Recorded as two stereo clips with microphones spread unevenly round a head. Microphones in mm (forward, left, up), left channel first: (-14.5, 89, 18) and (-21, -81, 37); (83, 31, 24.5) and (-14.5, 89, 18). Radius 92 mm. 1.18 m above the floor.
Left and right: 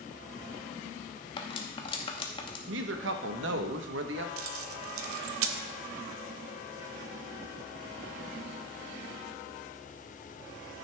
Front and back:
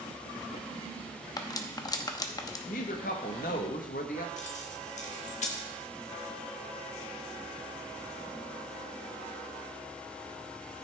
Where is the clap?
No clap in this recording.